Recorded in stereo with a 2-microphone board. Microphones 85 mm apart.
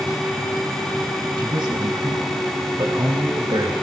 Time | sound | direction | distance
1.4 | a man speaking | 65° right (ahead or behind) | 3.5 m